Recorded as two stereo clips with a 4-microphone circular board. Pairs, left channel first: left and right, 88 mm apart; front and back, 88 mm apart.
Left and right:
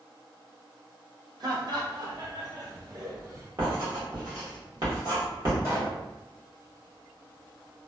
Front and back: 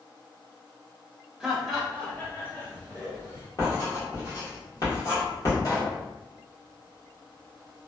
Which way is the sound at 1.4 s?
100° right.